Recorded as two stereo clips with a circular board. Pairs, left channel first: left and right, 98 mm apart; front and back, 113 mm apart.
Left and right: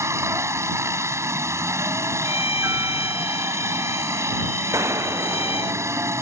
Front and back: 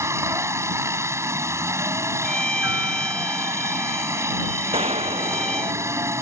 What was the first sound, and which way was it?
A helicopter, 130° right.